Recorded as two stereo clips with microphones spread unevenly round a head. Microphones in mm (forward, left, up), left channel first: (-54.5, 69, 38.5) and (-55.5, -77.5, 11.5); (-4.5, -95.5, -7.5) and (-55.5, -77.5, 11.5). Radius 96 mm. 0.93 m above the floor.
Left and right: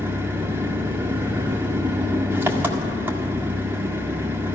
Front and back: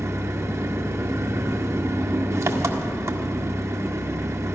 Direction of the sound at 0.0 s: 165° right.